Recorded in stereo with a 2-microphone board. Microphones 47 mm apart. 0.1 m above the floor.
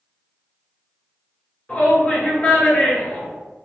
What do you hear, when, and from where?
1.7 s a shout: 30° left (ahead or behind), 1.8 m